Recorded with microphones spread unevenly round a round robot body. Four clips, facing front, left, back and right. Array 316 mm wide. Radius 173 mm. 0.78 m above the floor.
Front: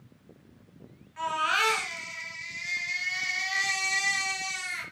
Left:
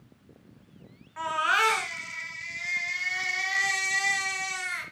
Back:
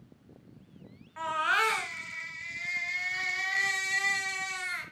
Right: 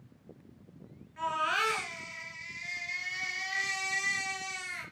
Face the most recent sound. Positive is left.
turn(degrees=110)